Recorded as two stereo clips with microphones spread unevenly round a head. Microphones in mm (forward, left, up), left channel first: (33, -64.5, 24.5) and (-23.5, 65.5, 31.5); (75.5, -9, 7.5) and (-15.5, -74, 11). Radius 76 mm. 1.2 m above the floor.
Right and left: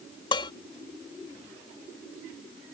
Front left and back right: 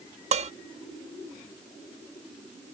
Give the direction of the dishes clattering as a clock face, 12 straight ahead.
4 o'clock.